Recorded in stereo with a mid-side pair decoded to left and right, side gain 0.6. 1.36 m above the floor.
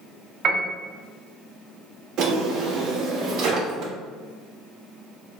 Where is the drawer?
65° right, 1.4 m.